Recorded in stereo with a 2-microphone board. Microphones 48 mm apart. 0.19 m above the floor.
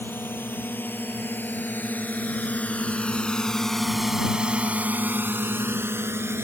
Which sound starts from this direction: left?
A drone, at 0.0 s.